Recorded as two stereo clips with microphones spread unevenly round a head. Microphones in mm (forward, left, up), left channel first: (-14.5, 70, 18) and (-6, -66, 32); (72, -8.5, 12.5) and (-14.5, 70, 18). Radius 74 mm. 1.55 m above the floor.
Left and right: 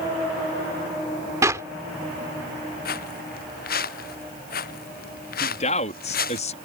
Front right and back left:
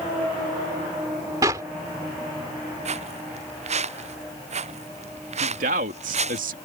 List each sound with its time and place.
1.4 s a clap: 155° right
2.9 s footsteps: 110° left
5.4 s a man speaking: 135° left